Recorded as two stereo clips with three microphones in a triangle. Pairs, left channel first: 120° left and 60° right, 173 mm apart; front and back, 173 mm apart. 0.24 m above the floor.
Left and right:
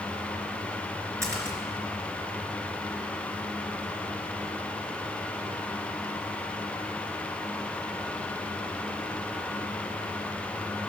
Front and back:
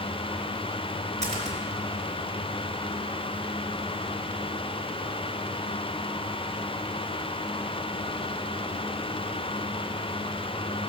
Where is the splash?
135° right, 3 m.